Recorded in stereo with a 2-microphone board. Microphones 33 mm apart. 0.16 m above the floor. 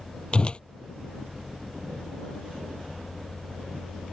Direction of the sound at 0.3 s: 30° left (ahead or behind).